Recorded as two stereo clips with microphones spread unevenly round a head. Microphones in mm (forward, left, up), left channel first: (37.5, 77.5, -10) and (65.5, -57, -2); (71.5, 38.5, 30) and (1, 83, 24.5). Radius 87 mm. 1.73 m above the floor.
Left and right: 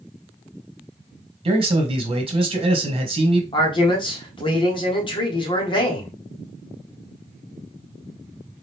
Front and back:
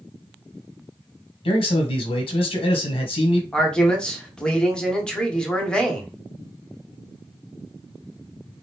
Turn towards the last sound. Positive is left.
turn(degrees=45)